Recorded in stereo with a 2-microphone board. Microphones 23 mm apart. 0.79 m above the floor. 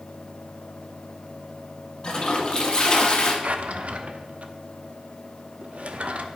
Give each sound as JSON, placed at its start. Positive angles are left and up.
{"t": 2.0, "sound": "a toilet flushing", "side_deg": 35, "distance_m": 1.1}
{"t": 3.4, "sound": "a drawer", "side_deg": -70, "distance_m": 0.6}